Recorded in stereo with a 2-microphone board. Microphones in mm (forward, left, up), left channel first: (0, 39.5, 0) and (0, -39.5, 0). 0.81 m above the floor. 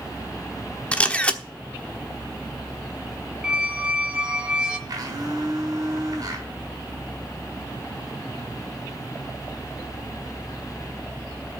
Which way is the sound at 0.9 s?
15° left (ahead or behind).